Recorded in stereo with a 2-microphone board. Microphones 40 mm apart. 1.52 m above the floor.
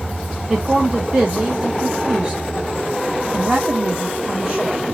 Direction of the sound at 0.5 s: 25° right (ahead or behind).